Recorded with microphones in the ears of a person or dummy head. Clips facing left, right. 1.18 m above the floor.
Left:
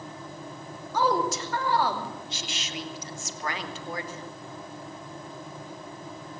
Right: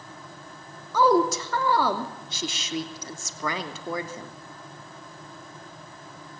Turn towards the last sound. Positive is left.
turn(degrees=-80)